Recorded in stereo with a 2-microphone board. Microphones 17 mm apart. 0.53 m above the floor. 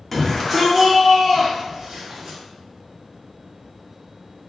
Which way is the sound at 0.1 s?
20° left (ahead or behind).